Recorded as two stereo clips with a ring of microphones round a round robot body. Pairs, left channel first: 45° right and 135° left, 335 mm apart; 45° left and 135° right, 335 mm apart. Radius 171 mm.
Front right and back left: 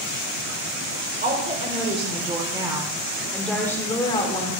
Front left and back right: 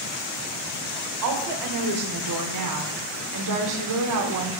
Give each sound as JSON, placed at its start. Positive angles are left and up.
{"t": 1.2, "sound": "a woman speaking", "azimuth_deg": -160, "distance_m": 2.5}